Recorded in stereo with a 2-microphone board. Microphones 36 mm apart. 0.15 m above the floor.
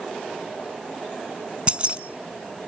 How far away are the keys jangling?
About 0.8 m.